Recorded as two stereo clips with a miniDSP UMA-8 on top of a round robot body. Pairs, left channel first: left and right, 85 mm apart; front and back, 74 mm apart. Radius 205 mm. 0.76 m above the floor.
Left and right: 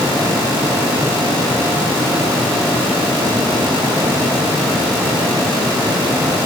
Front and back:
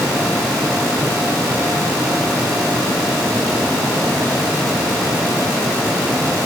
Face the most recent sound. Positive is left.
No sound to turn to.